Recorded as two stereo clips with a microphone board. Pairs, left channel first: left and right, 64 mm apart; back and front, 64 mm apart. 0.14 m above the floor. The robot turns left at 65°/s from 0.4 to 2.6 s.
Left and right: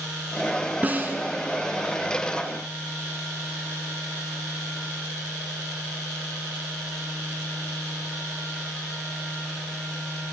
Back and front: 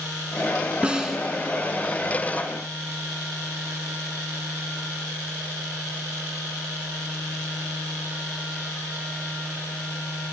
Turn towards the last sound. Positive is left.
turn(degrees=-170)